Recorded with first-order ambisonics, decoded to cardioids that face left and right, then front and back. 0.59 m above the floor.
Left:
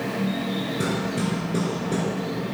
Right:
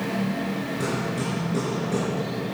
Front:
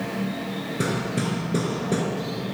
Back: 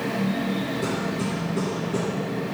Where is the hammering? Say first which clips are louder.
Even, even; 15° left, 4 m.